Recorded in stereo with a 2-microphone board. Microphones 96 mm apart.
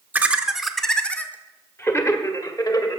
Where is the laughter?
15° right (ahead or behind), 0.9 m; by 3.0 s 40° left (ahead or behind), 1.8 m.